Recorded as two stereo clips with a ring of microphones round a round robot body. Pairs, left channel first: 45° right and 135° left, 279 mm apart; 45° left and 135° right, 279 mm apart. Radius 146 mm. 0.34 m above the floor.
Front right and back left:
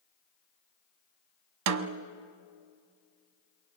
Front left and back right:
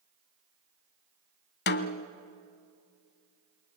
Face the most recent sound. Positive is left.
turn(degrees=100)